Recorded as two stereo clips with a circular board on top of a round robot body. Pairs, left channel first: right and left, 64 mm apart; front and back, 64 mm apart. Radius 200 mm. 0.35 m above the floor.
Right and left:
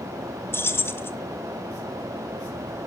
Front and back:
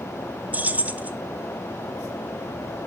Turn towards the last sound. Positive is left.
turn(degrees=-125)